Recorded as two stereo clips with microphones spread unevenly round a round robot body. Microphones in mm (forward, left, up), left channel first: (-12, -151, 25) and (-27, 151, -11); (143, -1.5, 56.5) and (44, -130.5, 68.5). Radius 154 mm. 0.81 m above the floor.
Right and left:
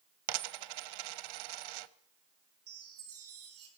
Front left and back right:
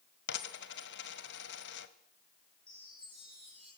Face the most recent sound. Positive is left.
turn(degrees=135)